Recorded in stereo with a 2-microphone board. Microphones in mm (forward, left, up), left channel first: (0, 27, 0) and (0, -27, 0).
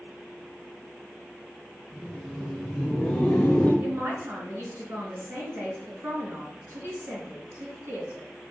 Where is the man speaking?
50° right (ahead or behind), 3.5 m.